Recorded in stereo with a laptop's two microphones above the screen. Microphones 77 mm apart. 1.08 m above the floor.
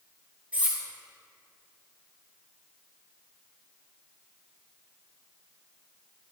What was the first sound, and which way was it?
Cutlery clinking, 20° right (ahead or behind).